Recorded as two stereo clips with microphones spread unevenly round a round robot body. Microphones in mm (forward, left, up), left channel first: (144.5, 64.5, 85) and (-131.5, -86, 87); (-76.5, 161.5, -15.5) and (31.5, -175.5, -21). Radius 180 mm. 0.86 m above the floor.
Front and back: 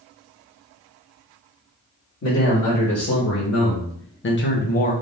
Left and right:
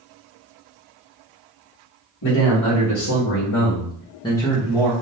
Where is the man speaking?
70° left, 1.6 m; by 4.9 s 10° right, 0.8 m.